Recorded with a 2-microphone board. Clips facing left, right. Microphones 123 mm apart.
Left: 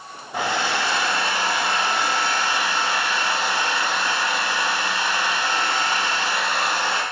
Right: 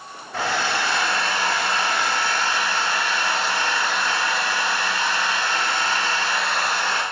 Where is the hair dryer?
15° left (ahead or behind), 0.5 m.